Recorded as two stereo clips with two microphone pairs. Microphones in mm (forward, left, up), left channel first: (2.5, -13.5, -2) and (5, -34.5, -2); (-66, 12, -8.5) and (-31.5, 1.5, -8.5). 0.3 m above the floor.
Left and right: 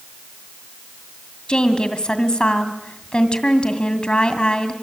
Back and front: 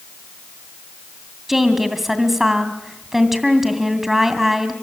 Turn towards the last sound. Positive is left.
turn(degrees=65)